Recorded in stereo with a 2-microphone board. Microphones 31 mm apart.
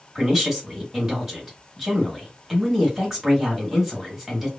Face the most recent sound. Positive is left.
turn(degrees=-15)  # may be behind; listen again after turning